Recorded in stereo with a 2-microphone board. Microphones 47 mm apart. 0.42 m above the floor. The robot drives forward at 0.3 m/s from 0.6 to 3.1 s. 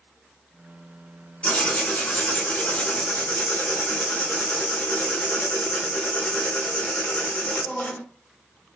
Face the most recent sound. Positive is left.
turn(degrees=40)  # may be behind; listen again after turning